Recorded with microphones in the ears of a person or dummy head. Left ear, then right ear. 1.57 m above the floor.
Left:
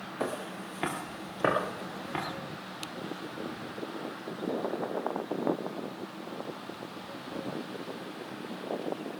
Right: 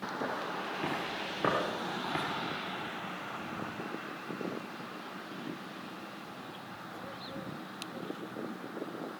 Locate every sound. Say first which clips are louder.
0.2 s footsteps: left 2 dB; 45° left (ahead or behind), 2.5 m; by 2.2 s 10° right (ahead or behind), 2.5 m